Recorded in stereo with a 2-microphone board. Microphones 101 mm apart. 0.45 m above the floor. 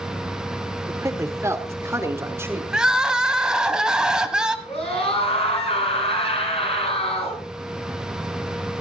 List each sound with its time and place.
0.9 s a man speaking: 30° right (ahead or behind), 1.3 m; by 2.6 s 25° right (ahead or behind), 1.9 m
2.7 s crying: 10° right (ahead or behind), 1.1 m
4.7 s a scream: 75° left (ahead or behind), 5.5 m